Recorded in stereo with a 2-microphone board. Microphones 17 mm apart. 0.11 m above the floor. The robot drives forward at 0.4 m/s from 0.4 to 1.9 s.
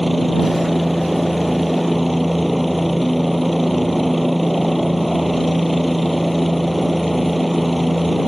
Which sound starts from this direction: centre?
A helicopter, at 0.0 s.